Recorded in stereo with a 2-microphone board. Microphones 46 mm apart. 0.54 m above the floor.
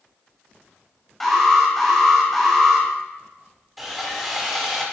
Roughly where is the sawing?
Centre.